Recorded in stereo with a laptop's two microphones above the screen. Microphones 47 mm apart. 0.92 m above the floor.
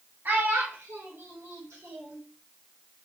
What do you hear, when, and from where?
0.2 s a child speaking: 50° right (ahead or behind), 1.2 m; by 2.2 s 85° right, 1.9 m